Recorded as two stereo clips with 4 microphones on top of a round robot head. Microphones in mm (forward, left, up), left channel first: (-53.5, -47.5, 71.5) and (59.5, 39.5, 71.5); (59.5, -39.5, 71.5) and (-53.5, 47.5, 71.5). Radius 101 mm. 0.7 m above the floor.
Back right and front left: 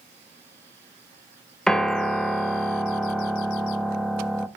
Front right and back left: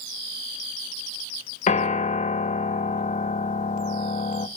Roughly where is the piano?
Ahead right.